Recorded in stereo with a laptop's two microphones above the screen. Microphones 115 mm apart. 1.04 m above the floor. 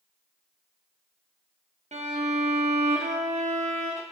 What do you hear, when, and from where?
1.9 s a violin: 85° right, 0.6 m